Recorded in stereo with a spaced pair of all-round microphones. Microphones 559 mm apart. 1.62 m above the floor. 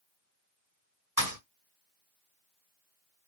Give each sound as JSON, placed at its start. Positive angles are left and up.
{"t": 1.2, "sound": "a thud", "side_deg": -35, "distance_m": 2.0}